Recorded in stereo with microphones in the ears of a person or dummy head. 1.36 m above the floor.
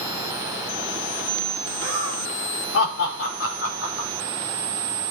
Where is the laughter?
85° left, 4 m.